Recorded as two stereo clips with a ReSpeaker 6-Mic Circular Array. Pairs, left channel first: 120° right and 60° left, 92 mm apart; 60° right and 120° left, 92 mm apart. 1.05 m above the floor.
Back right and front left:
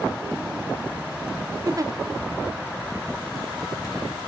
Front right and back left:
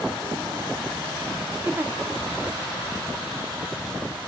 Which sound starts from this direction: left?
A giggle, at 1.6 s.